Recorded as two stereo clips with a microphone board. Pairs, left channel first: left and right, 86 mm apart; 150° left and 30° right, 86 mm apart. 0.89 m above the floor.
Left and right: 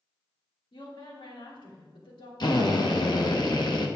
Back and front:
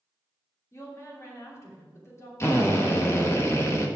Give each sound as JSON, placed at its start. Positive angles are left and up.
{"t": 0.7, "sound": "a woman speaking", "azimuth_deg": 95, "distance_m": 3.0}
{"t": 2.4, "sound": "a drill", "azimuth_deg": 100, "distance_m": 1.2}